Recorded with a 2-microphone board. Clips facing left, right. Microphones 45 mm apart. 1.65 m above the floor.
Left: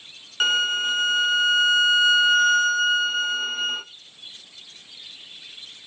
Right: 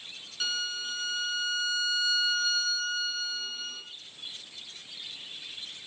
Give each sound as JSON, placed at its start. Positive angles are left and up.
{"t": 0.4, "sound": "a violin", "side_deg": 55, "distance_m": 0.6}